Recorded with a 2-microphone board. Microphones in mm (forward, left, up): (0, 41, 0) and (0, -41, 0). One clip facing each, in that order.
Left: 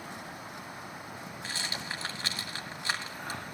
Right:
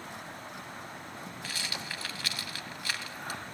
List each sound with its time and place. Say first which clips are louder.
1.4 s a rattle: left 2 dB; 30° left (ahead or behind), 1.2 m